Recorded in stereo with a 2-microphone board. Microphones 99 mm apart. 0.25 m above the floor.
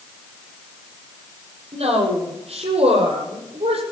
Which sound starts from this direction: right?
A woman speaking, at 1.7 s.